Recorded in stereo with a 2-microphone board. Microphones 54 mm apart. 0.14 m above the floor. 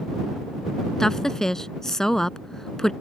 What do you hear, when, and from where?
1.0 s a woman speaking: 10° left (ahead or behind)